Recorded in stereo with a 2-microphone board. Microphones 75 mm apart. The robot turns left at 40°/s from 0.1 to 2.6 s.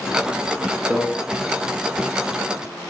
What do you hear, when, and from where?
0.9 s a microwave: 25° right (ahead or behind), 0.7 m